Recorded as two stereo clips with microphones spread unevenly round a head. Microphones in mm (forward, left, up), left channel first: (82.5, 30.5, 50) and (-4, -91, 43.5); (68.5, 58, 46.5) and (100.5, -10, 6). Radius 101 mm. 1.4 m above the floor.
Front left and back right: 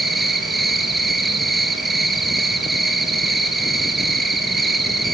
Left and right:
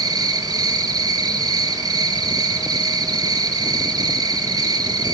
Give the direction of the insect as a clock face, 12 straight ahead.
1 o'clock.